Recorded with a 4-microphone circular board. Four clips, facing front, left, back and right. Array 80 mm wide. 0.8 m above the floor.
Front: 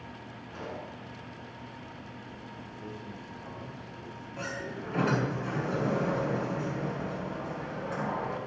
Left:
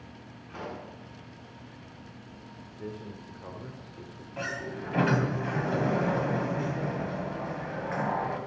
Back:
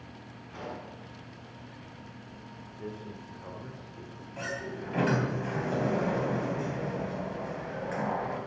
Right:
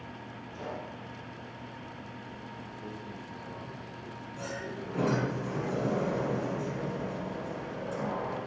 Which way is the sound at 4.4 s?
100° left.